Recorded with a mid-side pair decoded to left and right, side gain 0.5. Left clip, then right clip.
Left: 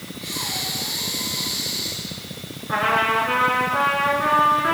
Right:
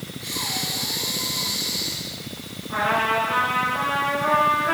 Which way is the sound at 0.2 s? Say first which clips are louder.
Even; 5° right.